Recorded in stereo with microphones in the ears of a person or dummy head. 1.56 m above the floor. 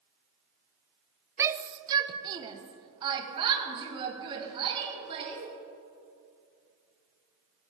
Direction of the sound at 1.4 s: 15° right (ahead or behind).